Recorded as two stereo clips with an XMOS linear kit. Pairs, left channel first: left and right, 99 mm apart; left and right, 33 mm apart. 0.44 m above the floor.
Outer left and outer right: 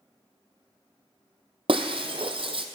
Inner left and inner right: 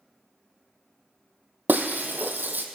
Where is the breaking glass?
65° right (ahead or behind), 1.1 m.